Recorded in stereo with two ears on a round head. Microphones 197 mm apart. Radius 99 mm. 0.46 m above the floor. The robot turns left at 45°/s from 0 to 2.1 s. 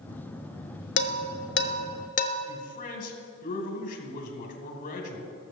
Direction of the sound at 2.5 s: 40° left (ahead or behind).